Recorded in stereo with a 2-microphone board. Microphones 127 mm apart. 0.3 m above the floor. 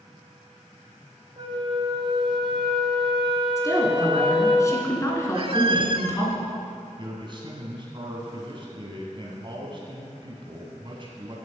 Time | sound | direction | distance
1.4 | a flute | 45° right (ahead or behind) | 1.9 m
3.6 | a woman speaking | 25° left (ahead or behind) | 3 m
5.3 | a squeak | 45° right (ahead or behind) | 0.6 m
7.0 | a man speaking | 40° right (ahead or behind) | 2 m